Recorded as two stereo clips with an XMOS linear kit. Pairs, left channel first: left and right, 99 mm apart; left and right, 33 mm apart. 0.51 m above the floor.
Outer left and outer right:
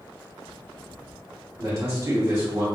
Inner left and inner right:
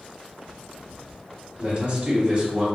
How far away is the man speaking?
About 1.7 m.